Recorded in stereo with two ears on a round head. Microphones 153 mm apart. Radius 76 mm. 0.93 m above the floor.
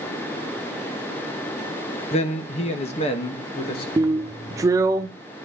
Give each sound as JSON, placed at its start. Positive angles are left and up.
{"t": 2.1, "sound": "a man speaking", "side_deg": 35, "distance_m": 1.1}
{"t": 4.0, "sound": "a drill", "side_deg": -20, "distance_m": 0.5}